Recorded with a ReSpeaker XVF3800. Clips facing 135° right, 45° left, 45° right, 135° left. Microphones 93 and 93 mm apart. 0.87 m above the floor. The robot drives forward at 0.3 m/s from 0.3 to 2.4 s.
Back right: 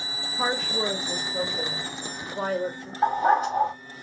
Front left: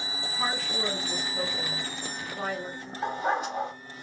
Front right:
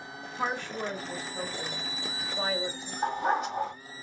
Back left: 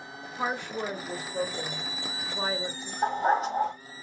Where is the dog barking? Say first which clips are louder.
Back right 8 dB, back left 3 dB; straight behind, 1.8 m.